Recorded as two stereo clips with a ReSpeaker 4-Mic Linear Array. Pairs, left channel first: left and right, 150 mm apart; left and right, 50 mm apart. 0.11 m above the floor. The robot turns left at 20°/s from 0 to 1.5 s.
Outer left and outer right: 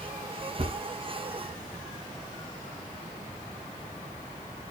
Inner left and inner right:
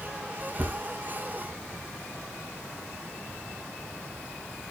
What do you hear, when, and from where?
0.6 s a thud: 40° right (ahead or behind), 3 m; by 0.8 s 35° right (ahead or behind), 3 m